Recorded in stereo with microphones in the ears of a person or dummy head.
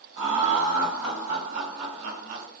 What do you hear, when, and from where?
0.2 s laughter: 75° right (ahead or behind), 1.5 m; by 2.5 s 55° right (ahead or behind), 1.5 m